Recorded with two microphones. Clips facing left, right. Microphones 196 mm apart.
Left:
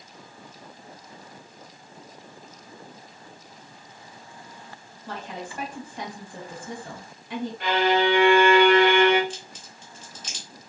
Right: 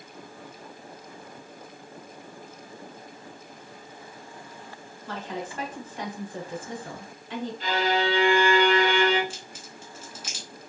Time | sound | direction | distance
5.1 | a woman speaking | 15° left (ahead or behind) | 1.2 m
7.6 | a violin | 60° left (ahead or behind) | 1.2 m
9.3 | a crack | 10° right (ahead or behind) | 1.1 m